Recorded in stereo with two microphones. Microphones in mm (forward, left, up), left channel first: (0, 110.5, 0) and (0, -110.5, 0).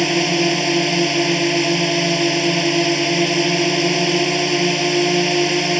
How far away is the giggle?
No giggle in this recording.